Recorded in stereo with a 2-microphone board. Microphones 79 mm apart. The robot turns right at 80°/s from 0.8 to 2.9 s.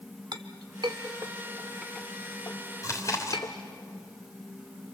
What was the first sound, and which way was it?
A clink, 60° right (ahead or behind).